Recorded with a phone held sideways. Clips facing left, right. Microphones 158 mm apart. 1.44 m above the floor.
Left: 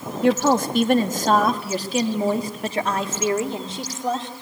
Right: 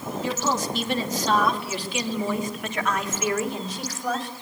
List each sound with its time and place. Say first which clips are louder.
0.2 s a woman speaking: left 9 dB; 60° left (ahead or behind), 1.9 m; by 4.3 s 25° left (ahead or behind), 3.5 m